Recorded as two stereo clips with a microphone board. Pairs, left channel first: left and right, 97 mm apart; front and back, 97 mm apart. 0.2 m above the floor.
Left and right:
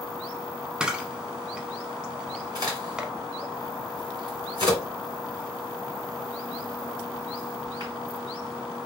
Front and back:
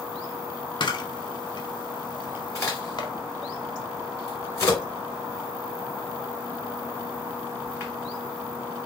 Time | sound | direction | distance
0.8 | a camera shutter | 10° right | 0.7 m
2.5 | a crack | 55° right | 2.5 m